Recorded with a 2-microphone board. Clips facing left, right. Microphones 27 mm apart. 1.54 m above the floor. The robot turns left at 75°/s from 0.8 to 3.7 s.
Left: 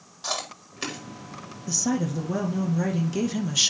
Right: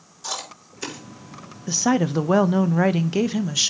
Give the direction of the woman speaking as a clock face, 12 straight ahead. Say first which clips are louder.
Right 6 dB; 1 o'clock.